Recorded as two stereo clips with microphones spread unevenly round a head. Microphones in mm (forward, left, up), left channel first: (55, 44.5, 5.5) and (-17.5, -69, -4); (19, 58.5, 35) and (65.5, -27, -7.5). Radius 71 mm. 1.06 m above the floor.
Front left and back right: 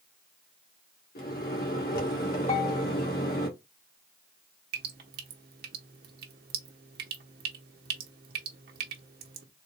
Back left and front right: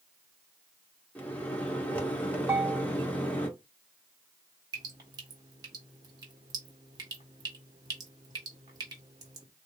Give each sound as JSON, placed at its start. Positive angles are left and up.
{"t": 1.1, "sound": "a microwave", "azimuth_deg": 45, "distance_m": 1.4}
{"t": 2.5, "sound": "a bell", "azimuth_deg": 20, "distance_m": 1.5}
{"t": 4.7, "sound": "dripping", "azimuth_deg": -115, "distance_m": 0.9}